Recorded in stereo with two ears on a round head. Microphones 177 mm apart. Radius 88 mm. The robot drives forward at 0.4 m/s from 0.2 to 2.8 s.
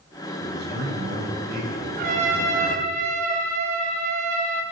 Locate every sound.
0.4 s a man speaking: 60° right (ahead or behind), 9.5 m; by 3.0 s 55° right (ahead or behind), 10 m
2.0 s a trumpet: 45° right (ahead or behind), 4 m; by 4.6 s 40° right (ahead or behind), 4.5 m